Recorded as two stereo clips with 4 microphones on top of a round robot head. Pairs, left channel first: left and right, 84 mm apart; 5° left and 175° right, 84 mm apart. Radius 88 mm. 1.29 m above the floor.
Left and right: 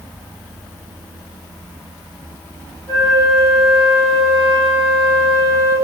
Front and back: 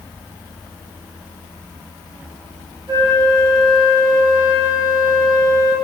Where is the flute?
155° left, 3 m.